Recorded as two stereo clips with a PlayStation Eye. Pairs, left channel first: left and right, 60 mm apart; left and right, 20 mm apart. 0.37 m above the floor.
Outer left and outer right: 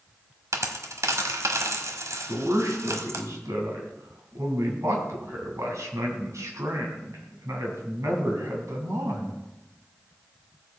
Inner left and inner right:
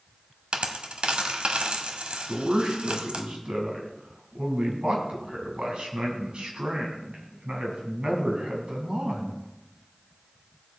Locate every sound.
0.5 s a dropped coin: 65° right (ahead or behind), 1.1 m
2.3 s a man speaking: 65° right (ahead or behind), 3 m